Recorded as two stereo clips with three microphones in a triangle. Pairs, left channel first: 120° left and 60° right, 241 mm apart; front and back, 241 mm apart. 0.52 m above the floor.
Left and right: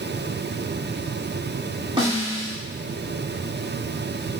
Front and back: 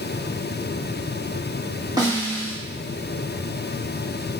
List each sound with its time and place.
2.0 s a snare drum: 115° right, 1.5 m